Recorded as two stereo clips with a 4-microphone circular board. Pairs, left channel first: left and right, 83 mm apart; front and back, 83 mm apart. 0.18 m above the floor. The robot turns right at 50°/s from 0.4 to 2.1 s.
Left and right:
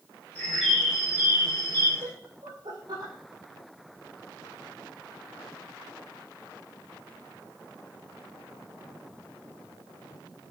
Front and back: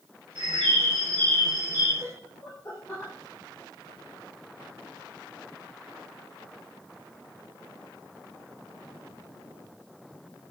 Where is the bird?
170° left, 6 m; by 1.9 s 115° right, 6 m.